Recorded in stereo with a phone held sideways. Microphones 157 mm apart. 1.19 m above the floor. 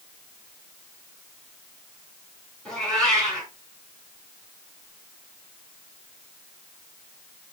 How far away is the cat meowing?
About 3 m.